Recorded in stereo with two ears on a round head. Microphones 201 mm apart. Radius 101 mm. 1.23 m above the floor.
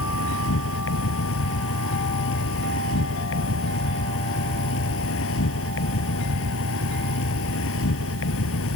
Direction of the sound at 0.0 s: 65° left (ahead or behind).